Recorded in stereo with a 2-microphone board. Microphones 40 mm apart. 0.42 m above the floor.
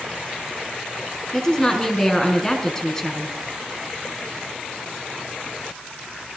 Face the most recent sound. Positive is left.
turn(degrees=15)  # may be behind; listen again after turning